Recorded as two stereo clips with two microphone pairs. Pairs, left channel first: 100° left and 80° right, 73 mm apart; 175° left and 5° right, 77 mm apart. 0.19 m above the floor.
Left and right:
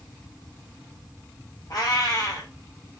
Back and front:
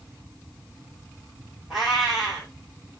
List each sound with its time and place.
1.7 s a cat meowing: 80° left, 1.4 m